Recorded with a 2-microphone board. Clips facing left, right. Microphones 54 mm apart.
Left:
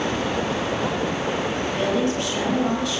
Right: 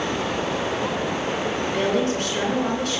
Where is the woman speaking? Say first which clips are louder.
Right 1 dB; 45° right (ahead or behind), 5 m.